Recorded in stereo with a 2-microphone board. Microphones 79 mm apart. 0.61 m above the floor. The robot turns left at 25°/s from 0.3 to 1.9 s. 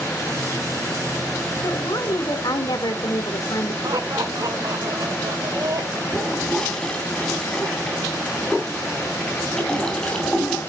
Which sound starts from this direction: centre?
A toilet flushing, at 6.1 s.